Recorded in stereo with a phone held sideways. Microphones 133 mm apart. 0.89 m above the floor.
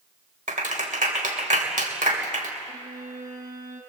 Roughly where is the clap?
Right.